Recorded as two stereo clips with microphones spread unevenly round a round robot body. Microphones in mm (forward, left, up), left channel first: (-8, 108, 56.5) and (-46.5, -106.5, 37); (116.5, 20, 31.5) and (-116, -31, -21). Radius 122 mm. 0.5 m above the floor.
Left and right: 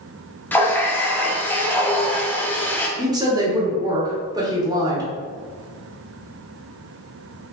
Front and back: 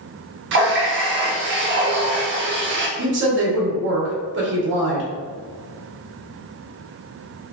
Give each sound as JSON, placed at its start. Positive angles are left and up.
{"t": 0.5, "sound": "a running tap", "azimuth_deg": 165, "distance_m": 0.7}
{"t": 3.0, "sound": "a woman speaking", "azimuth_deg": -165, "distance_m": 1.1}